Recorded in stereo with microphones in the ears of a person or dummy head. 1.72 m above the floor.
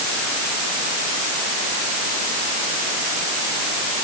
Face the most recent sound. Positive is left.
No sound to turn to.